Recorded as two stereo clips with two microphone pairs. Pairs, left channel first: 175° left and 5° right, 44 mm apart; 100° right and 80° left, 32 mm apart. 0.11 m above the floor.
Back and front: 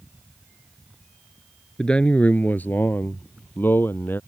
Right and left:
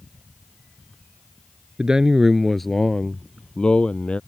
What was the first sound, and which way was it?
A man speaking, 120° left.